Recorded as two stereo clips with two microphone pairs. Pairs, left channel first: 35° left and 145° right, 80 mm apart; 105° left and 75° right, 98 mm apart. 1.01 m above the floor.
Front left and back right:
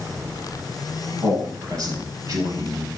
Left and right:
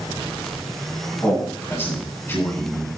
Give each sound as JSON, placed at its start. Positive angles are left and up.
{"t": 1.2, "sound": "a man speaking", "azimuth_deg": 180, "distance_m": 9.5}